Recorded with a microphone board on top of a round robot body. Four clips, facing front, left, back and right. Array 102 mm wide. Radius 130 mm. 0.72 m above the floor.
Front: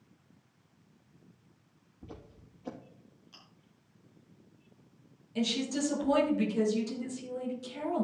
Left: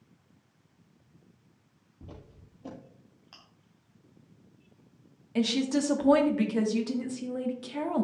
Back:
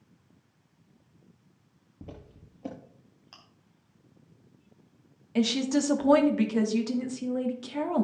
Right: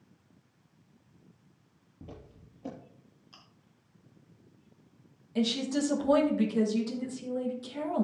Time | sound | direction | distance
2.0 | footsteps | 170° right | 6 m
3.3 | chewing | 140° left | 2.5 m
5.3 | a woman speaking | 145° left | 2 m